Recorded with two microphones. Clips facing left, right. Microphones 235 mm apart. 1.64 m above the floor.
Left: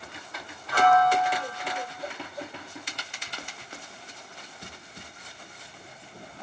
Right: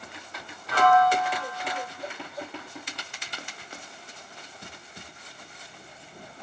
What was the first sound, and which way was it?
A piano, 70° right (ahead or behind).